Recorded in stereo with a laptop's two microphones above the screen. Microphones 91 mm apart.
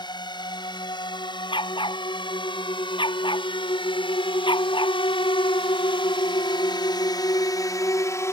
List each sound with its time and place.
0.0 s a drone: 55° left (ahead or behind); by 8.3 s 30° left (ahead or behind)
1.5 s a dog barking: 60° left (ahead or behind)